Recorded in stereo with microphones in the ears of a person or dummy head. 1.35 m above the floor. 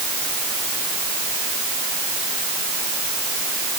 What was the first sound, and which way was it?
Only background noise.